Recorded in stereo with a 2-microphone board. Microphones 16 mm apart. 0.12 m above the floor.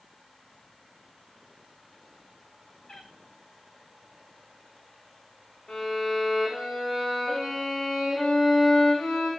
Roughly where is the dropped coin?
No dropped coin in this recording.